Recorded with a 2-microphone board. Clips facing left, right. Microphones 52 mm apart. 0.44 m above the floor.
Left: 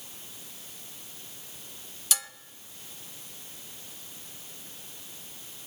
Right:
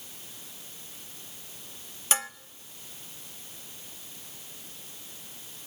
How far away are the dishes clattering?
About 0.7 m.